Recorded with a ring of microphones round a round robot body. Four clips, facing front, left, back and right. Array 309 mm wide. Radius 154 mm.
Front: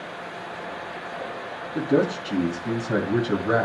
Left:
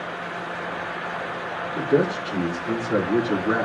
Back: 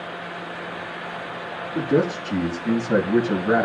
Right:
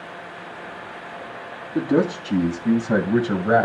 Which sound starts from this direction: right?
A man speaking, at 1.8 s.